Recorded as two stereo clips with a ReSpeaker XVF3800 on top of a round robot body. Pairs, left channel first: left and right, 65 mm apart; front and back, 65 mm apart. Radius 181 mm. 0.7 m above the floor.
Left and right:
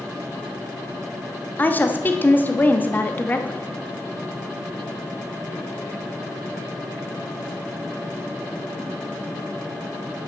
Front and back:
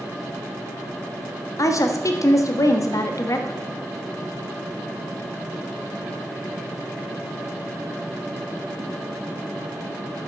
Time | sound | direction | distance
1.6 | a woman speaking | 30° left | 1.3 m